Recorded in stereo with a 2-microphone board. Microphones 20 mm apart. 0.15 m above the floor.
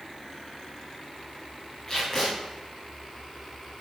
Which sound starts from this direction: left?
Tape being pulled, at 1.9 s.